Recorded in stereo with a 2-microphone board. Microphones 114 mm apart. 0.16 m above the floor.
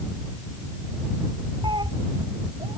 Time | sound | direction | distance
1.6 | a cat meowing | 40° right (ahead or behind) | ?